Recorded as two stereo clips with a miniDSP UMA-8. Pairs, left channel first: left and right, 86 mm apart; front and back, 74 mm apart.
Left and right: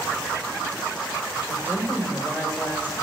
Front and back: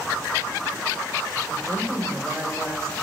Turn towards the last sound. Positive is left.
turn(degrees=-145)